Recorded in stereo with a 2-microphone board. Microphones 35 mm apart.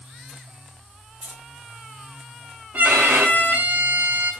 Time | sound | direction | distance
1.2 | keys jangling | 65° right (ahead or behind) | 3 m
2.7 | a violin | 65° right (ahead or behind) | 3 m